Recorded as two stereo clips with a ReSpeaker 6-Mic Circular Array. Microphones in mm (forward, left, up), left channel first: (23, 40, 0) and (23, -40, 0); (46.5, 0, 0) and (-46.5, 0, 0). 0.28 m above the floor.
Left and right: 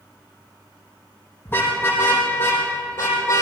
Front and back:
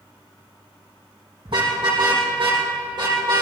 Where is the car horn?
155° left, 5.5 m; by 3.4 s 140° left, 4.5 m.